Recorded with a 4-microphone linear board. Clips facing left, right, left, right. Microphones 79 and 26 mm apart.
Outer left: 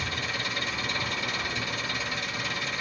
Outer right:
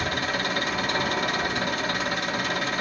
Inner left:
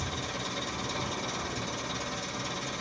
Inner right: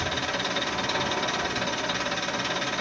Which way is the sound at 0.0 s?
65° right (ahead or behind).